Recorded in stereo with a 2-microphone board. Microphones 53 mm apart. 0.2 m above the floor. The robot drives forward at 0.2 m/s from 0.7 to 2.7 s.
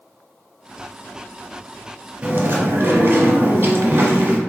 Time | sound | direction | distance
2.2 | chewing | 45° right (ahead or behind) | 0.9 m